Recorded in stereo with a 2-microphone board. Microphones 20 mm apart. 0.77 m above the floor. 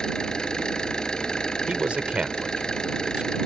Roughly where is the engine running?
Left.